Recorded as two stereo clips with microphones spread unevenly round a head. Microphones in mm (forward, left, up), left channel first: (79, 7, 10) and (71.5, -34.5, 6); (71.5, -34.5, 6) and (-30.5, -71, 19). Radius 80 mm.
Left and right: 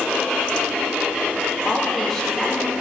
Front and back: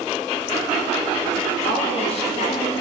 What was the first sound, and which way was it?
A woman speaking, 5° right.